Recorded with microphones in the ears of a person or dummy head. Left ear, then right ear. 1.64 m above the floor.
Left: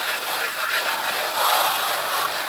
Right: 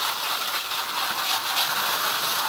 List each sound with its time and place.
Only background noise.